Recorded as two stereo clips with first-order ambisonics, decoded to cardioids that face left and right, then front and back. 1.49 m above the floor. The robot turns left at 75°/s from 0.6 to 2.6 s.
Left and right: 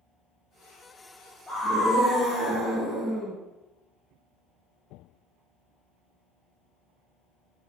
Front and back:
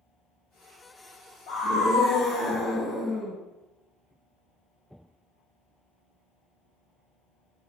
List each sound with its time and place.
1.5 s a scream: 10° left, 0.8 m; by 3.4 s 75° right, 0.8 m